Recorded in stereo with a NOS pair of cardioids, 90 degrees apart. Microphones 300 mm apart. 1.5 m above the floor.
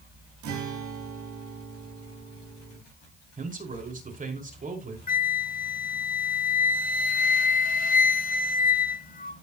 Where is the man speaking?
25° right, 4.5 m.